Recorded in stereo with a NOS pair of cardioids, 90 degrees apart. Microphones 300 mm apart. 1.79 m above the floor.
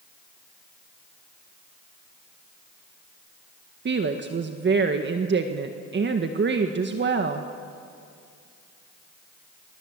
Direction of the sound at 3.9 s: 40° right.